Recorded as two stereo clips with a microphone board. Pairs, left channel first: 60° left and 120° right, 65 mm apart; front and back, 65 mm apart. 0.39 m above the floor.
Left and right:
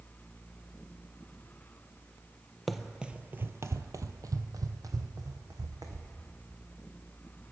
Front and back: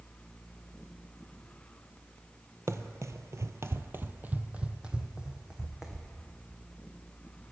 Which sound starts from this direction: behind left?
Running footsteps, at 2.7 s.